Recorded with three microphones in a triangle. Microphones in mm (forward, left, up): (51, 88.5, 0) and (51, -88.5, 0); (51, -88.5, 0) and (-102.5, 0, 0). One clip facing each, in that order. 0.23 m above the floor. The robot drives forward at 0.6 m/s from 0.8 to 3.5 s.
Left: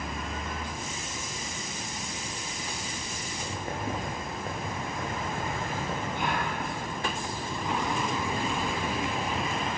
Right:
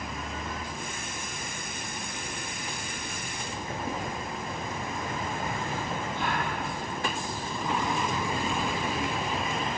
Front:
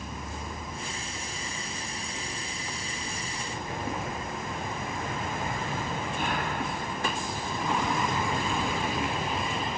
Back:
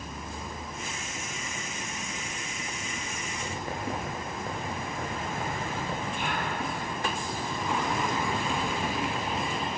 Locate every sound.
3.4 s writing: 125° left, 8.5 m
6.1 s a gasp: 15° left, 4.5 m